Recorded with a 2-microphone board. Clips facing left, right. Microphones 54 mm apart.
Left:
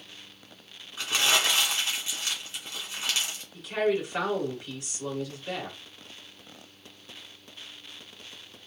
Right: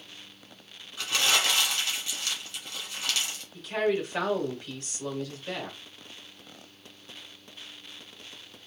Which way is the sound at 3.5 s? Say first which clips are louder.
Left 1 dB; 15° left (ahead or behind).